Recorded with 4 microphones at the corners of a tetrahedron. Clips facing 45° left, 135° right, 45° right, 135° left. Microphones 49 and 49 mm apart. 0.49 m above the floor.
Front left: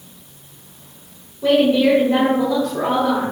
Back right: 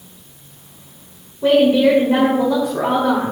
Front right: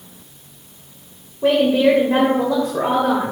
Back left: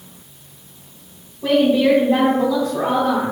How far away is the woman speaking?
About 1.9 m.